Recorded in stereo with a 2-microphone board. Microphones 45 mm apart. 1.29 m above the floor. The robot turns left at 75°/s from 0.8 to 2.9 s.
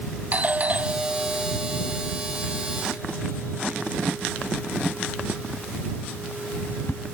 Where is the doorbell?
35° right (ahead or behind); by 7.0 s 55° left (ahead or behind).